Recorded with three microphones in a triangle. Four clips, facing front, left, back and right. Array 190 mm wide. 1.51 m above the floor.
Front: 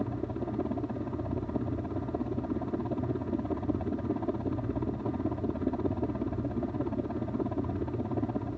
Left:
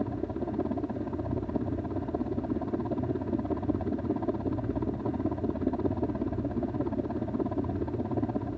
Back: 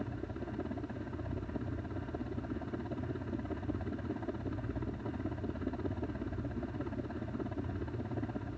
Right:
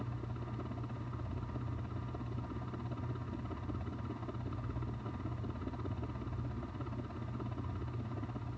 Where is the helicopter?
65° left.